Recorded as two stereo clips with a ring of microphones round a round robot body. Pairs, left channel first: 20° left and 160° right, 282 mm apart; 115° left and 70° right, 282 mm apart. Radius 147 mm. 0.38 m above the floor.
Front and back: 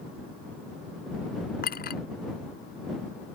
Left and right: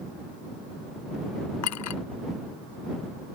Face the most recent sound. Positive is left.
turn(degrees=80)